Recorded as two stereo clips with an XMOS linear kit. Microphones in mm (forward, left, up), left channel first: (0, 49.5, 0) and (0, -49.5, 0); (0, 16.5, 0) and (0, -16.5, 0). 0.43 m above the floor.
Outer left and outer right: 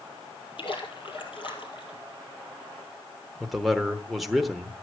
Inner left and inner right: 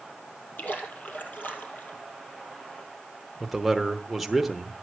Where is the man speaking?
Centre (ahead or behind), 1.0 m.